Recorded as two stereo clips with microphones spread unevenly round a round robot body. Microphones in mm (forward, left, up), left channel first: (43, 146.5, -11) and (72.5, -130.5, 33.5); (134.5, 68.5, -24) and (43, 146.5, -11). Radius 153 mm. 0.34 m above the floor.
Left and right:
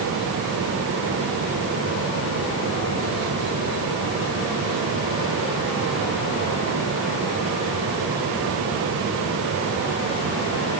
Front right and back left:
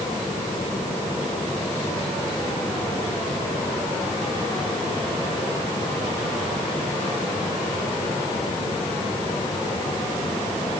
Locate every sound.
Only background noise.